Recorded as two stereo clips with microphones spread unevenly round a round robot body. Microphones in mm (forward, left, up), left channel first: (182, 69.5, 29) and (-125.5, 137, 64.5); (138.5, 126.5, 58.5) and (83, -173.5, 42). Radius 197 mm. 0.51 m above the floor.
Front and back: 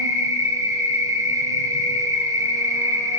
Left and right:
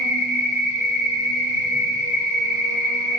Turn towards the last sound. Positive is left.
turn(degrees=85)